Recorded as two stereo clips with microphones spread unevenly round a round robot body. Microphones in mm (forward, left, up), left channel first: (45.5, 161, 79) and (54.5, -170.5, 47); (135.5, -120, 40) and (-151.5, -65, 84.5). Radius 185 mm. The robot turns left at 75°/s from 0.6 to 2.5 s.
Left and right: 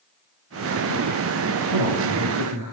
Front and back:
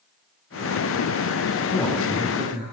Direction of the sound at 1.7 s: 70° right.